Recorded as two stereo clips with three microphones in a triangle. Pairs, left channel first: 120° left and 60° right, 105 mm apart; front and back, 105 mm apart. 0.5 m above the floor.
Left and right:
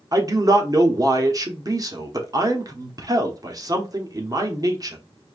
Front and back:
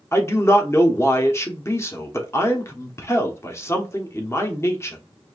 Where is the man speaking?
45° right, 0.9 m.